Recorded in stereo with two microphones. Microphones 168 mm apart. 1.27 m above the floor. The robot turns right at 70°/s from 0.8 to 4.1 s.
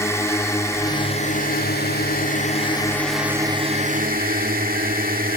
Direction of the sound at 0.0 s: 15° left.